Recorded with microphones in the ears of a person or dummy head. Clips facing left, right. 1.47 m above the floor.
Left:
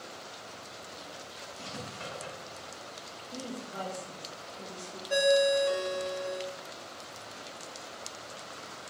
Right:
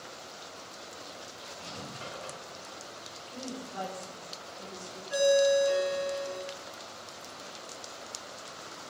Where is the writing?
60° left (ahead or behind), 2 m.